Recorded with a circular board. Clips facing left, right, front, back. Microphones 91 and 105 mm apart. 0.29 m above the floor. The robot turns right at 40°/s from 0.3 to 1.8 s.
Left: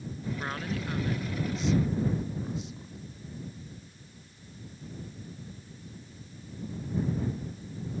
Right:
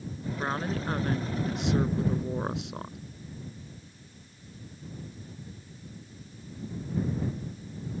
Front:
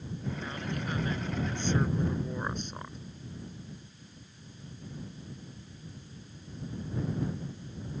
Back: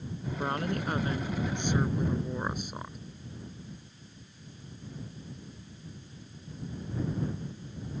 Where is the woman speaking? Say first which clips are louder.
Right 6 dB, back 10 dB; 155° right; by 3.0 s 100° right.